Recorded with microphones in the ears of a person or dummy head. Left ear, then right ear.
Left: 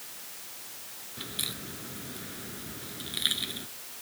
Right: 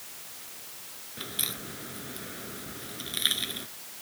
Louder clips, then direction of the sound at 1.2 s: Right 1 dB; 30° right (ahead or behind).